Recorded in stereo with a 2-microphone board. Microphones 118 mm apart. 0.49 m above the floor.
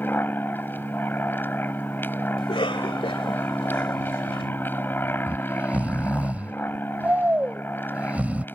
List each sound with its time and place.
0.0 s an aircraft: 15° left (ahead or behind)
2.4 s a cough: 50° left (ahead or behind)
5.3 s snoring: 10° right (ahead or behind)